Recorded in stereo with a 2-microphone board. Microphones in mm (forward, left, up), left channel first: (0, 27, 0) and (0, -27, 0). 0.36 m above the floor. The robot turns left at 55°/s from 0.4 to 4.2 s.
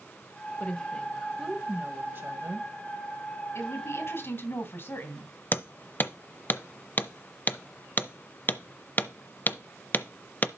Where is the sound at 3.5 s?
100° left, 2.5 m; by 5.3 s 65° left, 2.5 m.